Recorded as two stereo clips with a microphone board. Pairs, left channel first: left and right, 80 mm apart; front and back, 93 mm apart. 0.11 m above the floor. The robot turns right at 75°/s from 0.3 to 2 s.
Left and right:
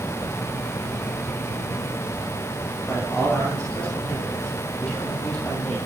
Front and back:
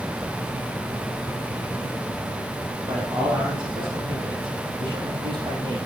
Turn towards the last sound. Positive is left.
turn(degrees=165)